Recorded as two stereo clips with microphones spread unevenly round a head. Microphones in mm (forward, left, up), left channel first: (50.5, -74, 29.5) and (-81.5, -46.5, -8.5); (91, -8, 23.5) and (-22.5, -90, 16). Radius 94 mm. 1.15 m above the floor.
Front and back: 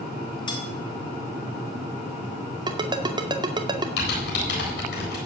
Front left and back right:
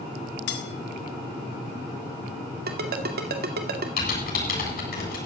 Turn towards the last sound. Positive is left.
turn(degrees=15)